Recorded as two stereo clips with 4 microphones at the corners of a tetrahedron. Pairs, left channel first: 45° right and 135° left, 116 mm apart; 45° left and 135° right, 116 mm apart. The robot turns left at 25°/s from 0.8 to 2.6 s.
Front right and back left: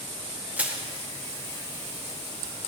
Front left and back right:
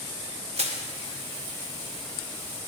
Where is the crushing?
150° right, 0.8 m.